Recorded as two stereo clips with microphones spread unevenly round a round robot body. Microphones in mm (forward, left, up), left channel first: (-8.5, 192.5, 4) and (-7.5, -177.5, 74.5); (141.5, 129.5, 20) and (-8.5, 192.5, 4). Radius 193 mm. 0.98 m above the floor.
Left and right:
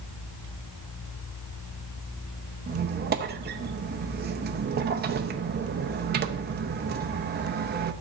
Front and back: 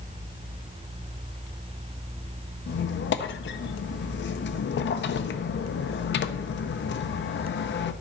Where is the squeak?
20° right, 0.6 m.